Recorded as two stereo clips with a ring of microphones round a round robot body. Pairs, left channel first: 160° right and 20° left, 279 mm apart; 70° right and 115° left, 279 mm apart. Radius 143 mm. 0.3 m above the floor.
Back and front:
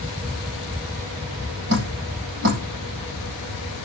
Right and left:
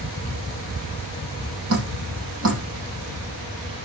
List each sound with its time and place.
1.7 s dripping: 70° left, 9.5 m